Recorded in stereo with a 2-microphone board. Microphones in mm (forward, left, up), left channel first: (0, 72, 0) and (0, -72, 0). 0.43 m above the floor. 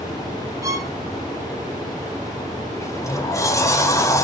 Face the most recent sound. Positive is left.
turn(degrees=20)  # may be behind; listen again after turning